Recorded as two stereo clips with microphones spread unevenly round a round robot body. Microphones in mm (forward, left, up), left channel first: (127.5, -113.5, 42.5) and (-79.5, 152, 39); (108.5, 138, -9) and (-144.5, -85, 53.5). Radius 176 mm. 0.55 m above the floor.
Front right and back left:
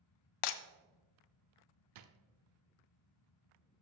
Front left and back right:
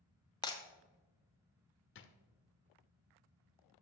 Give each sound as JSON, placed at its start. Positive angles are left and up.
{"t": 0.4, "sound": "breaking glass", "azimuth_deg": -35, "distance_m": 0.6}
{"t": 1.9, "sound": "a drawer", "azimuth_deg": 95, "distance_m": 0.7}